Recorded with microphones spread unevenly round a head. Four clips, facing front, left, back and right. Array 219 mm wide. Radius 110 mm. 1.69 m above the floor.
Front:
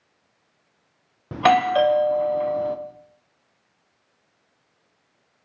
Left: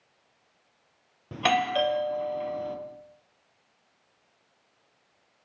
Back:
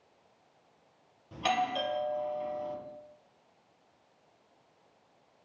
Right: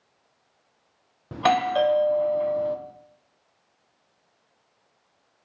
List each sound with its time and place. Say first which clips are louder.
1.3 s a doorbell: right 4 dB, front 13 dB; 10° right, 1.1 m